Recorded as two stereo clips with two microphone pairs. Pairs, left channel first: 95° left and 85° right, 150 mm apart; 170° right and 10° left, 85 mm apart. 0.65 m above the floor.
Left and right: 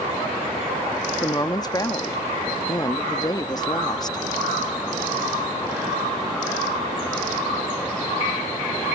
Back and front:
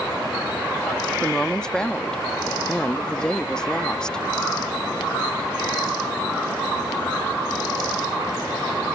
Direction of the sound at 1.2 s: 120° left.